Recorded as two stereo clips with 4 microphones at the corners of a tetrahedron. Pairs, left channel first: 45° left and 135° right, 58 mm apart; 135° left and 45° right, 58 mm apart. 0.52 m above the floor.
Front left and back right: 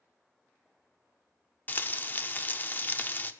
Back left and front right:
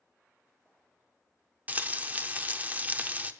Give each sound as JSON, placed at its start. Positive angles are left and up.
{"t": 1.7, "sound": "frying", "azimuth_deg": 5, "distance_m": 0.6}